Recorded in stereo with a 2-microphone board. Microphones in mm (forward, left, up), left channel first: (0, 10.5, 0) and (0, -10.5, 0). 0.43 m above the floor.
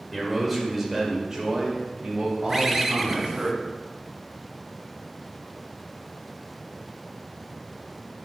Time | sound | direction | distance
0.1 | a man speaking | centre (ahead or behind) | 1.9 m
2.5 | a bird | 10° right (ahead or behind) | 0.6 m